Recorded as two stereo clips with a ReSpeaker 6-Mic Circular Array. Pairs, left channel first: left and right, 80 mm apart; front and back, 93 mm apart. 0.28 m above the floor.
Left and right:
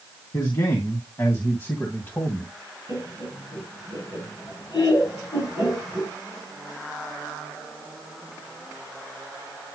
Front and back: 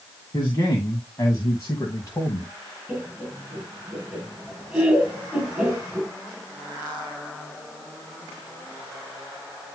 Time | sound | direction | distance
0.3 | a man speaking | 50° left | 3 m
2.9 | laughter | 95° left | 3.5 m